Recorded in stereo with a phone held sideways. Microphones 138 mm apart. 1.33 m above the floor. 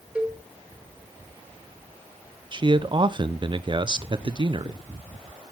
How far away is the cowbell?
About 1.8 m.